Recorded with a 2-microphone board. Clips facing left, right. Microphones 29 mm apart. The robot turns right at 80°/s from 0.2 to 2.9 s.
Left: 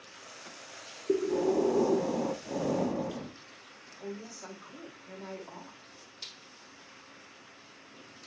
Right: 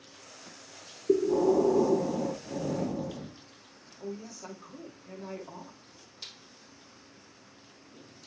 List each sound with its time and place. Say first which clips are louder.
1.1 s breathing: right 4 dB; 60° right, 0.6 m; by 3.4 s 85° left, 0.6 m
4.0 s a woman speaking: right 2 dB; 10° left (ahead or behind), 2 m